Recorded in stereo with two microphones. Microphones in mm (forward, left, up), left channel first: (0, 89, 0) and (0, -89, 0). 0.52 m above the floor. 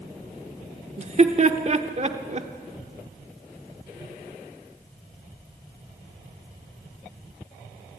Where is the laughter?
40° right (ahead or behind), 1.1 m.